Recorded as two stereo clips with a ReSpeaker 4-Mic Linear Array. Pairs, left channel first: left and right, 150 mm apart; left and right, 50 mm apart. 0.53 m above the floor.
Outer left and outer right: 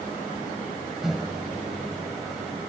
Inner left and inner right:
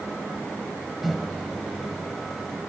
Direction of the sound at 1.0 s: Centre (ahead or behind).